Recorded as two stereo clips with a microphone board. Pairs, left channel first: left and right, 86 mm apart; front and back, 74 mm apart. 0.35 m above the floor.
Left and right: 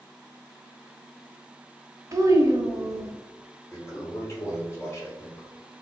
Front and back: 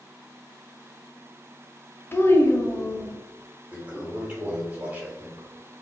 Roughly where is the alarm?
No alarm in this recording.